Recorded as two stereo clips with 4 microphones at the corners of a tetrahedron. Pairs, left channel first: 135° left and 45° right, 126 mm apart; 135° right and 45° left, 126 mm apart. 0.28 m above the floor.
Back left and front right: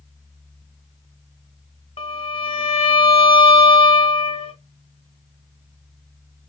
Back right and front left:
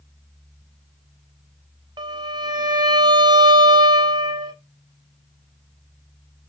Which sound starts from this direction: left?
A violin, at 2.0 s.